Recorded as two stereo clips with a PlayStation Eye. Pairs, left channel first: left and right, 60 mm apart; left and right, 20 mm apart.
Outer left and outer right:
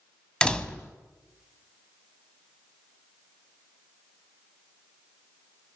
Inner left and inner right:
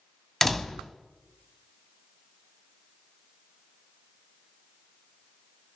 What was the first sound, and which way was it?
A door slam, 15° left (ahead or behind).